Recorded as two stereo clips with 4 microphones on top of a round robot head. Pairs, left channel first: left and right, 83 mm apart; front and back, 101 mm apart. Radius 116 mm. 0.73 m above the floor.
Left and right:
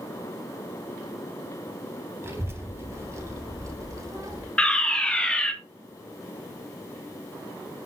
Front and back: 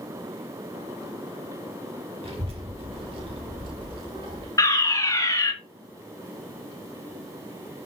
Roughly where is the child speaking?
Behind right.